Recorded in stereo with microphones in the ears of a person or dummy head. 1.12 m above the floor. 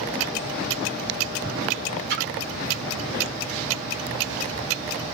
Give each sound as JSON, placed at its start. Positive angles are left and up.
{"t": 2.1, "sound": "a splash", "side_deg": -55, "distance_m": 0.9}